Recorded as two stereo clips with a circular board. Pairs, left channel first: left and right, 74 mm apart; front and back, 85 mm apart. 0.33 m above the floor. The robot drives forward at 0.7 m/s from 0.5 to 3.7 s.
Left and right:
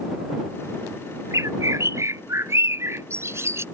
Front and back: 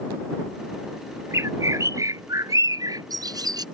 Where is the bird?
125° right; by 3.6 s 140° right.